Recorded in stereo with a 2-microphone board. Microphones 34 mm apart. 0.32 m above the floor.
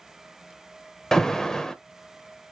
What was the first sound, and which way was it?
An alarm, 15° left (ahead or behind).